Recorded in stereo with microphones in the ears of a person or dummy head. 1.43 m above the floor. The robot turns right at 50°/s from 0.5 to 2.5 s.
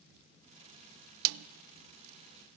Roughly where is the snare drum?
Right.